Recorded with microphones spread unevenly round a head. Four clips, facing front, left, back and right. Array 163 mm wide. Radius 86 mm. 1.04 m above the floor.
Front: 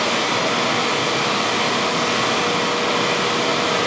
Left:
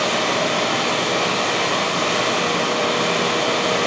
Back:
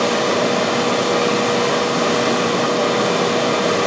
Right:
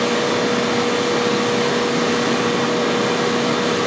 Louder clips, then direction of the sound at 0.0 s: Right 2 dB, back 4 dB; 170° left.